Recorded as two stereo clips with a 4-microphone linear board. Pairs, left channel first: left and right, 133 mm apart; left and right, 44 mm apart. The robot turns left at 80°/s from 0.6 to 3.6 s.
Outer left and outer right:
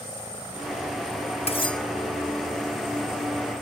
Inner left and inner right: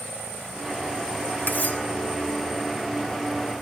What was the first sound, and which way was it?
Cutlery clinking, 45° left (ahead or behind).